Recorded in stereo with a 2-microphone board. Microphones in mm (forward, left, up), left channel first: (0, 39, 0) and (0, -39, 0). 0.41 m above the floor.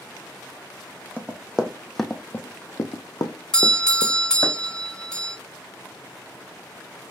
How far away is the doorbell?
About 1.3 m.